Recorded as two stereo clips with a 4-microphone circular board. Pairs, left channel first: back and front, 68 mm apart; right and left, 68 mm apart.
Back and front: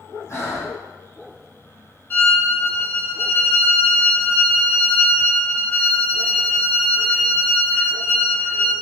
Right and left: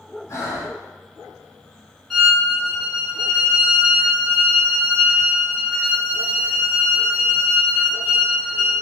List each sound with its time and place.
0.3 s breathing: 135° right, 1.2 m
2.1 s a violin: straight behind, 1.6 m